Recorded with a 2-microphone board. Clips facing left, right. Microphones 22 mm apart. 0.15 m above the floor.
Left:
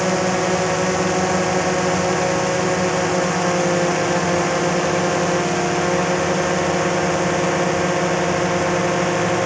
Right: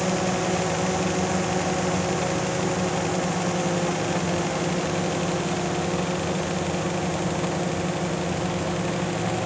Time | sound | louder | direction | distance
0.0 | a drone | left 6 dB | 35° left (ahead or behind) | ?